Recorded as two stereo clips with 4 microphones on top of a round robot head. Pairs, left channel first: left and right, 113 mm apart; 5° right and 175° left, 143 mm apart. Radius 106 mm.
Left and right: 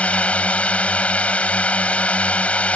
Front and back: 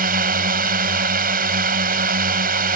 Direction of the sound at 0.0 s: 170° left.